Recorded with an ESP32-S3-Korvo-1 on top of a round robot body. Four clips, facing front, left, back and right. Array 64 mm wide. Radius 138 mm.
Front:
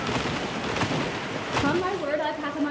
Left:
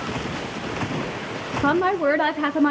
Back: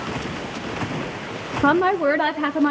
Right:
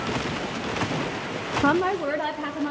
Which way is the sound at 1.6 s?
175° right.